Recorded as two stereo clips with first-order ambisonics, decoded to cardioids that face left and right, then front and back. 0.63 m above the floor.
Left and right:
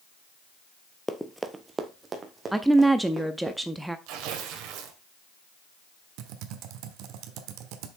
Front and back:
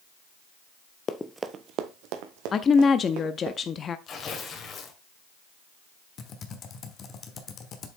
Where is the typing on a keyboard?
60° right, 1.3 m.